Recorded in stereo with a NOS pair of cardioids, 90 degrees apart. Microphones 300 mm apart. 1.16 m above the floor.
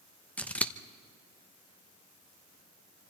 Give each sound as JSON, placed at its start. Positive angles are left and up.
{"t": 0.4, "sound": "scissors", "azimuth_deg": 5, "distance_m": 1.0}